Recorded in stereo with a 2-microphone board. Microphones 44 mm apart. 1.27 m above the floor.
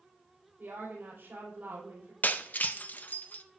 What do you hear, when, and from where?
0.6 s a woman speaking: 65° right (ahead or behind), 4.5 m
2.2 s breaking glass: 40° left (ahead or behind), 0.5 m